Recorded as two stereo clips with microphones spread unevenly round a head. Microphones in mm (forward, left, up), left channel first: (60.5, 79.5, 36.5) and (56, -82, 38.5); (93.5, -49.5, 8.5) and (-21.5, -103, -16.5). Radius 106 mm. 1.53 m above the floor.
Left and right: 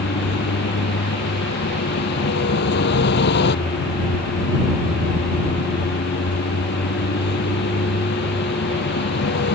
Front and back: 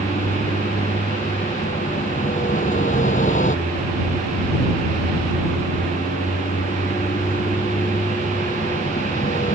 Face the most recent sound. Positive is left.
turn(degrees=80)